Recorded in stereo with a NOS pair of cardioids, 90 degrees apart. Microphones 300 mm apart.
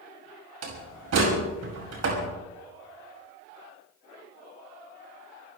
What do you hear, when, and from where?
0.6 s a door slam: 55° right, 6.5 m